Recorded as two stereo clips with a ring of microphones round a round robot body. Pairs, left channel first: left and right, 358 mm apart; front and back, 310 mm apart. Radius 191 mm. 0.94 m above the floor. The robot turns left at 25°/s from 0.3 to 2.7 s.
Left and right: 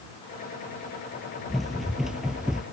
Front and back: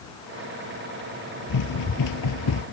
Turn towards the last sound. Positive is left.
turn(degrees=-5)